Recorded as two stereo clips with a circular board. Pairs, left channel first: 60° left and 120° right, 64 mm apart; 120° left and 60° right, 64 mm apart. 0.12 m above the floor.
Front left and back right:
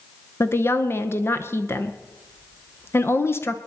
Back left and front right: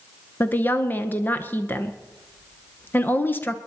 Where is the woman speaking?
80° left, 1.3 m.